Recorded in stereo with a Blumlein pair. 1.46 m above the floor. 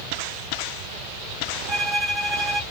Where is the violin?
15° right, 0.8 m.